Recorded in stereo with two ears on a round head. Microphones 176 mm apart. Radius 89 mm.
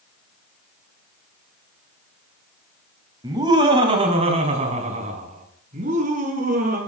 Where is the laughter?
20° right (ahead or behind), 2.5 m; by 6.8 s 40° right (ahead or behind), 5 m.